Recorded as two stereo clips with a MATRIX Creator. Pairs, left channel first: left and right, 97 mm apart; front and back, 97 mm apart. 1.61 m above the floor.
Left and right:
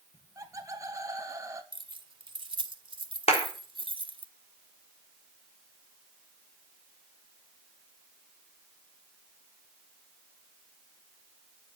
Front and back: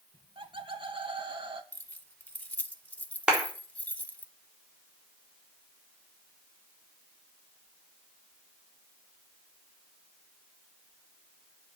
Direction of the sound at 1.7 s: 75° right.